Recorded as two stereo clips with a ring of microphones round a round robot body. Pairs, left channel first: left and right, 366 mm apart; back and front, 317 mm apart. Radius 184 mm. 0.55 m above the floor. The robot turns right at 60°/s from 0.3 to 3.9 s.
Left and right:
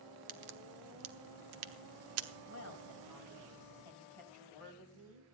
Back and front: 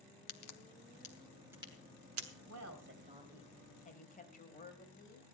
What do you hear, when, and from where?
0.3 s a crack: 155° right, 1.1 m; by 2.3 s 35° right, 1.1 m
2.5 s a woman speaking: 30° left, 3 m; by 5.3 s 115° left, 3 m